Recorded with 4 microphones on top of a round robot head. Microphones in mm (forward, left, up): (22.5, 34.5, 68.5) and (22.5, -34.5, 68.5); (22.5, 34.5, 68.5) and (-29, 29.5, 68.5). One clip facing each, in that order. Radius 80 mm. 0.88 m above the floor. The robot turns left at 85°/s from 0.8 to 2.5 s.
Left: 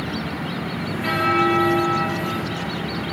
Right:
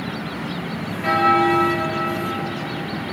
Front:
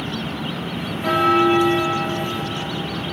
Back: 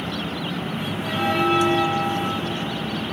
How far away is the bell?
About 1.8 m.